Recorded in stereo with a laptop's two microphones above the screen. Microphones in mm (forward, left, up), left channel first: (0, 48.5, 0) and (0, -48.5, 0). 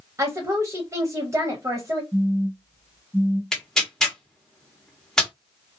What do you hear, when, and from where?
0.2 s a woman speaking: 30° right (ahead or behind), 0.6 m
2.1 s a phone buzzing: 10° right (ahead or behind), 0.8 m
3.5 s tearing paper: 5° left (ahead or behind), 1.1 m